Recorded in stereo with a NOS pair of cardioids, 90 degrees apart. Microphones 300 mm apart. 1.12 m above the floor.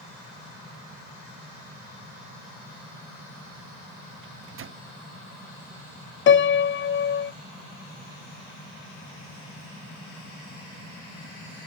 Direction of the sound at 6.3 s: 40° left.